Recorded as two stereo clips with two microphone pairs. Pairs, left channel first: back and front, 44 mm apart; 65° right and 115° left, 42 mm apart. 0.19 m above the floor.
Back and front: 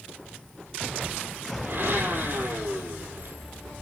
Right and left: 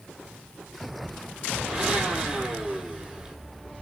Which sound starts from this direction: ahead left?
A blender, at 1.6 s.